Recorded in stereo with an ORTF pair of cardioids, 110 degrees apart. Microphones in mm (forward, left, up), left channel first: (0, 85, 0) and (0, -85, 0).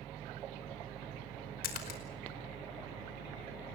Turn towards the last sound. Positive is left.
turn(degrees=65)